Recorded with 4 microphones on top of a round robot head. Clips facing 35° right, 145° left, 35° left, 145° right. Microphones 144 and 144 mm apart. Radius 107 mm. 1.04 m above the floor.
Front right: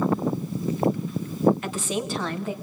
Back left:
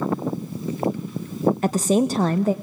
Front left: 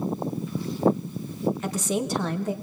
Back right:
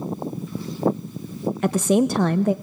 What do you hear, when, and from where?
1.6 s a woman speaking: 165° right, 0.7 m